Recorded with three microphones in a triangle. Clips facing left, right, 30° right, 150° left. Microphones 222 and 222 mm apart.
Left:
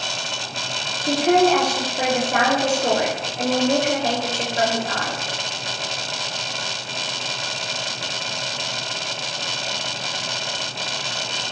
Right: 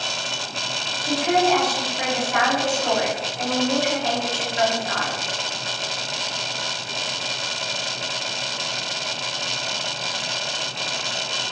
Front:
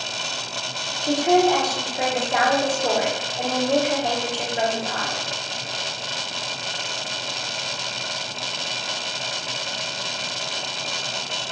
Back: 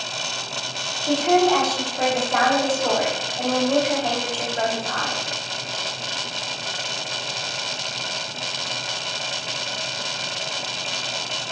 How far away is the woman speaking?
About 9 m.